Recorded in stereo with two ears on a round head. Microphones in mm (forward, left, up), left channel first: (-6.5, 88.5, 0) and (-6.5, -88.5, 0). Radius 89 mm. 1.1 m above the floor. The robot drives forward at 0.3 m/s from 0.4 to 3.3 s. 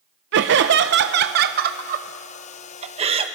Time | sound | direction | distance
0.3 | laughter | 60° right (ahead or behind) | 0.6 m